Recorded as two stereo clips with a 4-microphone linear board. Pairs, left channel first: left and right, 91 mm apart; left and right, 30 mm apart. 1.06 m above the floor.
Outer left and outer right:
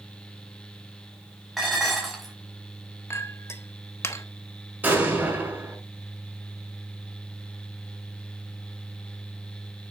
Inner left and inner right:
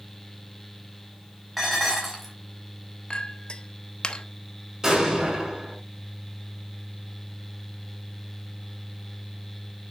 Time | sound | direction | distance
1.6 | dishes clattering | centre (ahead or behind) | 5 m
3.1 | a clink | 30° left (ahead or behind) | 1.1 m
4.8 | an explosion | 20° right (ahead or behind) | 6.5 m